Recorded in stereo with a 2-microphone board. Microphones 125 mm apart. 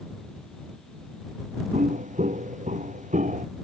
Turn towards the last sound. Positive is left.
turn(degrees=-85)